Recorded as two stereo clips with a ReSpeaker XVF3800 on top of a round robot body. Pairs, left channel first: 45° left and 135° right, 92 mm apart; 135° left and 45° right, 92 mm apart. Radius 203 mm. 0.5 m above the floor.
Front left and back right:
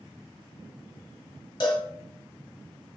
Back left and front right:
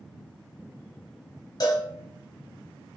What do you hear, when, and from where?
1.6 s a cowbell: 85° left, 0.5 m